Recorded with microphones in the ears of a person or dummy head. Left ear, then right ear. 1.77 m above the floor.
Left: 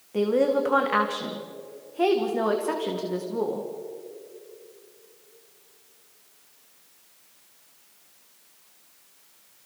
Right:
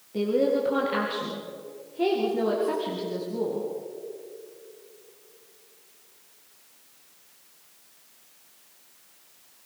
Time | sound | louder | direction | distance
0.1 | a woman speaking | left 2 dB | 45° left (ahead or behind) | 2 m